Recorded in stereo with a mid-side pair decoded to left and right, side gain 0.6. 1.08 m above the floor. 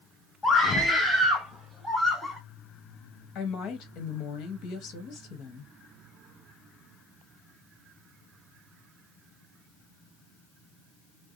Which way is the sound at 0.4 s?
20° left.